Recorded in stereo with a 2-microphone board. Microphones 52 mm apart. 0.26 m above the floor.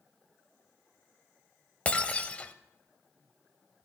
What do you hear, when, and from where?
1.9 s breaking glass: 25° left (ahead or behind), 0.8 m